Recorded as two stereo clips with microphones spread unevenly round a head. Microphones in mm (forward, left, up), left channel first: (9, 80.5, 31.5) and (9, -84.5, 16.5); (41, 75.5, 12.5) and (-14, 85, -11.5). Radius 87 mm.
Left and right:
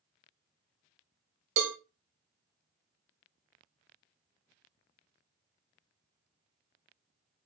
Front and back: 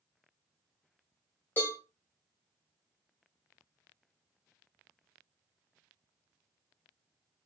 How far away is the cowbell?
About 0.6 m.